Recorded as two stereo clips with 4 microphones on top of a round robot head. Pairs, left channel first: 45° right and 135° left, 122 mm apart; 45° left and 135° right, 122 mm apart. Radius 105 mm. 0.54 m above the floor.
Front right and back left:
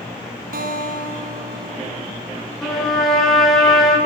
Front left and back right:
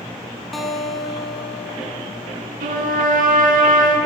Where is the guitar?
135° left, 1.5 m.